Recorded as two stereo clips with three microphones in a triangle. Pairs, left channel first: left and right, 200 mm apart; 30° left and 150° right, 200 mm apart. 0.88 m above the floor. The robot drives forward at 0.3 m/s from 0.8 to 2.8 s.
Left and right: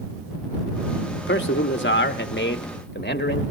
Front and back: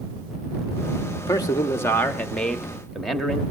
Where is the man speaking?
95° left, 1.2 m; by 3.4 s 120° left, 1.3 m.